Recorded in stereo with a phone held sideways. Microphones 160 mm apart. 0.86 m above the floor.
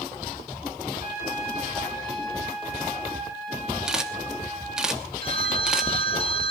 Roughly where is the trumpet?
Left.